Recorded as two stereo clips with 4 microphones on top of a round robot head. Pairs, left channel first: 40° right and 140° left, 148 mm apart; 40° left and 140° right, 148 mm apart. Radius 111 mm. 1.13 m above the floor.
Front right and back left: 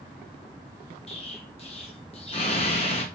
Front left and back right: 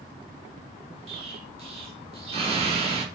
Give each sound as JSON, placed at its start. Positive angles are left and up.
{"t": 1.1, "sound": "an explosion", "azimuth_deg": -90, "distance_m": 2.5}